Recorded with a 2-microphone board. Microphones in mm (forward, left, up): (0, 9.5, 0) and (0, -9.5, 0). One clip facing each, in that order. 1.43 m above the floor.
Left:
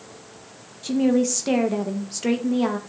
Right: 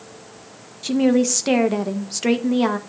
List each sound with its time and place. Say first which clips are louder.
0.8 s a woman speaking: right 3 dB; 30° right (ahead or behind), 1.3 m